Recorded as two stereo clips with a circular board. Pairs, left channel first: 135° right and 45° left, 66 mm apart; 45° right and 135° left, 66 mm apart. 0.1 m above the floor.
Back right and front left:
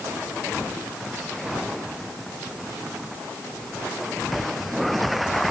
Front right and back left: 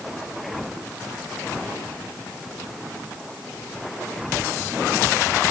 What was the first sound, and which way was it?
Only background noise.